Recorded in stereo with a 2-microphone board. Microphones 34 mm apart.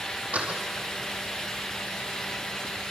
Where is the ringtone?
No ringtone in this recording.